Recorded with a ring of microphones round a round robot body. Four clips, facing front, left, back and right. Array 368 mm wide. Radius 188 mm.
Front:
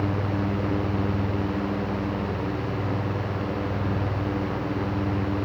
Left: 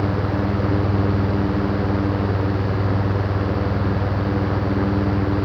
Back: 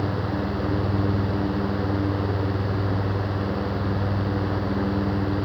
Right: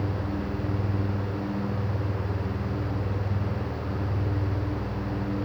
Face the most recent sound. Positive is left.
No sound to turn to.